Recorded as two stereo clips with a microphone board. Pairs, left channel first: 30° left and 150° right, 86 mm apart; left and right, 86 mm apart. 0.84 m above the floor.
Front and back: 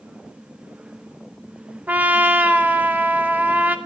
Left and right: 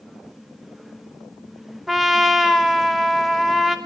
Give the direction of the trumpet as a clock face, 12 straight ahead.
6 o'clock.